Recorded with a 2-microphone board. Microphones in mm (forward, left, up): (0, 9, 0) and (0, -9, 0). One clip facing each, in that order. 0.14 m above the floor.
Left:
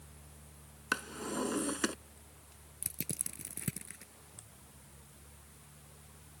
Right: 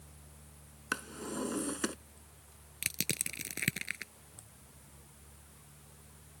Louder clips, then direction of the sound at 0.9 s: Left 2 dB; 10° left (ahead or behind).